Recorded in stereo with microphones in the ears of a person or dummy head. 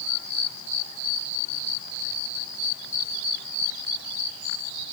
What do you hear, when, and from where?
Only background noise.